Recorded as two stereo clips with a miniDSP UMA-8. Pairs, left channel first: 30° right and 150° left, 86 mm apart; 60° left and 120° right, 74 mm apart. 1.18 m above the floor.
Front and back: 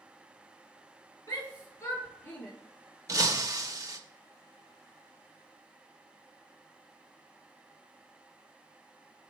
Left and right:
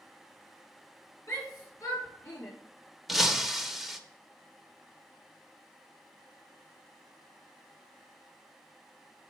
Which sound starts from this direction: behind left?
Breaking glass, at 3.1 s.